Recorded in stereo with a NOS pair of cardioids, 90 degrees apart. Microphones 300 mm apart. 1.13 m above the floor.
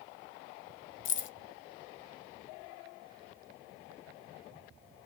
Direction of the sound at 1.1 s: 40° left.